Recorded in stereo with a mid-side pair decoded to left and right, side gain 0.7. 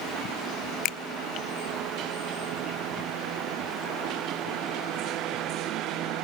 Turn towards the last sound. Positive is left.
turn(degrees=55)